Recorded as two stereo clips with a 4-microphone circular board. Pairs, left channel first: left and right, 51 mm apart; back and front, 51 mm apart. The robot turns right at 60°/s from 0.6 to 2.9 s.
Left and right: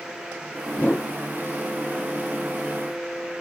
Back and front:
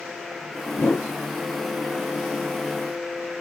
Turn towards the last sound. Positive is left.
turn(degrees=-90)